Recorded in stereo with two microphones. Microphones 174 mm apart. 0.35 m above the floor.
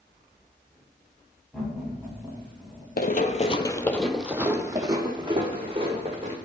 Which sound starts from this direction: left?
Running footsteps, at 3.0 s.